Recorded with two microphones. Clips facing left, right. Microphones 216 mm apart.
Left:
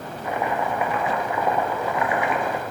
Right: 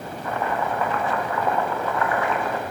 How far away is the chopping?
About 1.1 m.